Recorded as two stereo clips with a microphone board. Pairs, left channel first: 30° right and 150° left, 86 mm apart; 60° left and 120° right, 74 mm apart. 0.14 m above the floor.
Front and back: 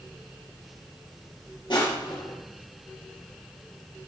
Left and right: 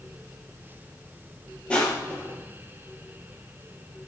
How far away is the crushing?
About 3.5 m.